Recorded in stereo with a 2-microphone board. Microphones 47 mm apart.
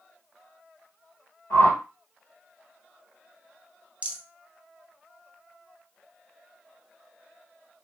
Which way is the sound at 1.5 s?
60° left (ahead or behind).